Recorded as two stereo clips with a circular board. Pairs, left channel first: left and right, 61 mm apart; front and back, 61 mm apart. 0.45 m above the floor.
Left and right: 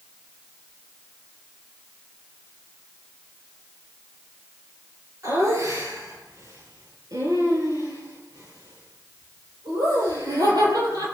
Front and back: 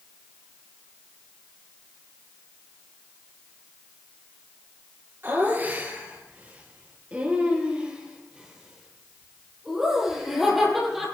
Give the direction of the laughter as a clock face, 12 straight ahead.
4 o'clock.